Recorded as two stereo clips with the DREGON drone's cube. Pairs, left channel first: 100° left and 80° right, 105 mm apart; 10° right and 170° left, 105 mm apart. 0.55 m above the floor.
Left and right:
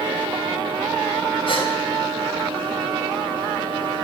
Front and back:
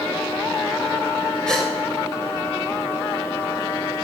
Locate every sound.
1.5 s a gasp: 70° left, 3 m